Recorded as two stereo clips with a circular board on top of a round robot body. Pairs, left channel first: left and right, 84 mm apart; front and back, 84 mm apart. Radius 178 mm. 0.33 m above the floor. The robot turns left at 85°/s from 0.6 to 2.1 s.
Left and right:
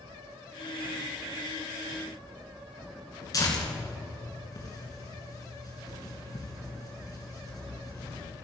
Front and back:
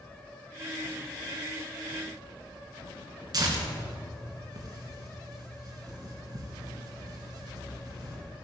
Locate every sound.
3.3 s tearing paper: 140° left, 3 m